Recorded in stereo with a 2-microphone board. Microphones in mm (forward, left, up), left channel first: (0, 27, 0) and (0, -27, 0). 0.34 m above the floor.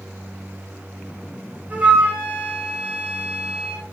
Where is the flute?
25° right (ahead or behind), 7.5 m.